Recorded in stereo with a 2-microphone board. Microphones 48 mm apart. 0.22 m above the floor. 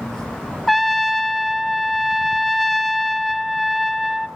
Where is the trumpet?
5° left (ahead or behind), 1.0 m.